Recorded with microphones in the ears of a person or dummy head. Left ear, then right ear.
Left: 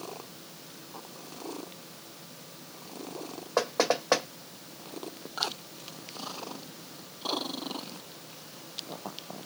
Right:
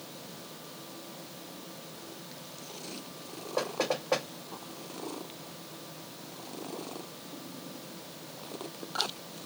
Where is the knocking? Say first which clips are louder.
Left 4 dB; 60° left (ahead or behind), 1.0 m.